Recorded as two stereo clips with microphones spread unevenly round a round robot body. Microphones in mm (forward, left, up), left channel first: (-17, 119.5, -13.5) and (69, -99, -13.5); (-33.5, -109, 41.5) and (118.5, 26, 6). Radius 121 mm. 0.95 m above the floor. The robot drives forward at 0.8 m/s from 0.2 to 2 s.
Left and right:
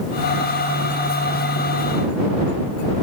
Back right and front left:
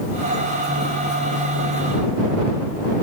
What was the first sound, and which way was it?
Only background noise.